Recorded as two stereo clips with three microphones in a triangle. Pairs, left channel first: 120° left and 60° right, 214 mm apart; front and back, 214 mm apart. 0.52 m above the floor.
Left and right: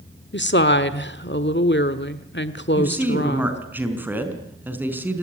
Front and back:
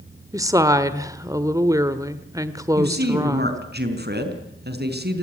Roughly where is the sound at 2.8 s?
Behind right.